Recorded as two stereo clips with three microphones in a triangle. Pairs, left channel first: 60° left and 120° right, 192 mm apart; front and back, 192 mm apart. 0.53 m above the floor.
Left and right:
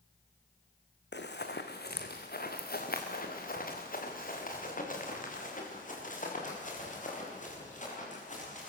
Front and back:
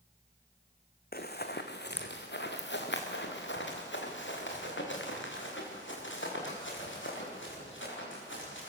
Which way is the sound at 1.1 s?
35° left.